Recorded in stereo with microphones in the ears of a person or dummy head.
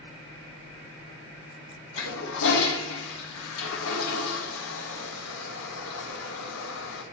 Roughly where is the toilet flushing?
Left.